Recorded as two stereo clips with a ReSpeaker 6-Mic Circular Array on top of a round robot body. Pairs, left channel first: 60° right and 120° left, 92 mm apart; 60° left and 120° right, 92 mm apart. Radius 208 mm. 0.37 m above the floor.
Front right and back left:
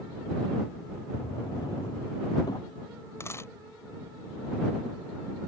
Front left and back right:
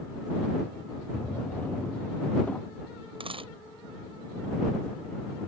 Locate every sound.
1.1 s a drawer: 15° right
3.2 s a dropped coin: 120° right